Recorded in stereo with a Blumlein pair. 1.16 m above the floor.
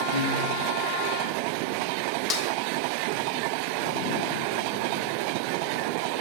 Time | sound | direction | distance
0.1 | a piano | 60° right | 4 m
2.3 | a snare drum | 30° left | 1.5 m